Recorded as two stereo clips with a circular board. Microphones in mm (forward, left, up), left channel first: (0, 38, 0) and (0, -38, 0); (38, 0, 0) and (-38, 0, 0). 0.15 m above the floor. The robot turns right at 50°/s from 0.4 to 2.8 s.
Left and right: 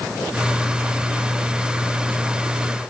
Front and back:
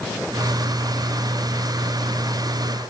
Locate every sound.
Only background noise.